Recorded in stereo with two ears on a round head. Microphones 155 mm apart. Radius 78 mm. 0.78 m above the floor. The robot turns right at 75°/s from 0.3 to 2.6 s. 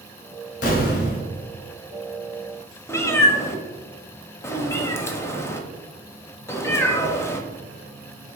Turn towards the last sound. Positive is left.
turn(degrees=15)  # may be behind; listen again after turning